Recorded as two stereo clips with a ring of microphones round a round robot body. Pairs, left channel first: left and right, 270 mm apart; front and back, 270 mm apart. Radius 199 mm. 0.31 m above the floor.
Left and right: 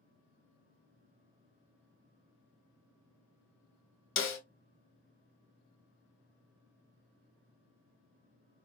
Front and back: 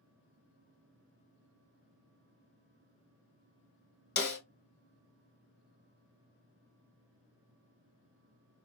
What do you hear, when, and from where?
4.2 s a snare drum: 50° left, 1.3 m